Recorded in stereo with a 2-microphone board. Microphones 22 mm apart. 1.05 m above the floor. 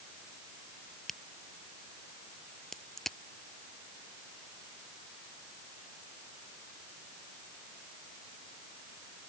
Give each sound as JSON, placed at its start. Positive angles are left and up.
{"t": 1.1, "sound": "a crack", "side_deg": 15}